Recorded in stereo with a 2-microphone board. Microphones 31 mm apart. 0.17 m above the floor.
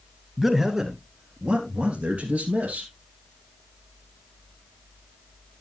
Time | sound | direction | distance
0.4 | a man speaking | 10° right (ahead or behind) | 1.7 m